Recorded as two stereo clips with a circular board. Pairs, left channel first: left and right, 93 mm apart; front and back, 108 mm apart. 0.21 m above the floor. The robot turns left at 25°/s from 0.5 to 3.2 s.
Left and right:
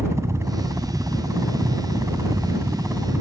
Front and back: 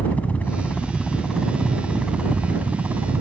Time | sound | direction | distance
0.0 | a helicopter | 65° right | ?